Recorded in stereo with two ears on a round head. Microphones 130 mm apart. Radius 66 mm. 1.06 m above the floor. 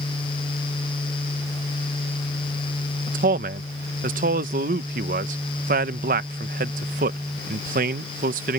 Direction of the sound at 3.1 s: 60° right (ahead or behind).